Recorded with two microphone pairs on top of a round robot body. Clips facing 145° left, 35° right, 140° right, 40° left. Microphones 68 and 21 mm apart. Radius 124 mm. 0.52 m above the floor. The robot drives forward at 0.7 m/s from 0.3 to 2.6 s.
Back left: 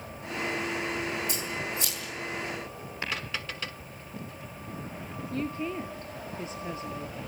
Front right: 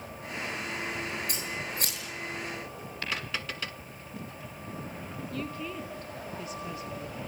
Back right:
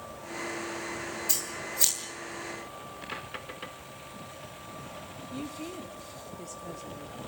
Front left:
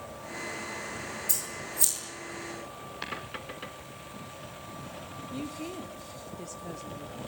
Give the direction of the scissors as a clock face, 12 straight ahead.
3 o'clock.